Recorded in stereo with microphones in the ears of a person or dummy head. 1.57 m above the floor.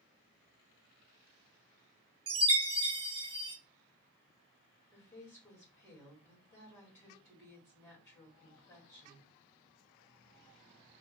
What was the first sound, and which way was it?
A chime, 20° right (ahead or behind).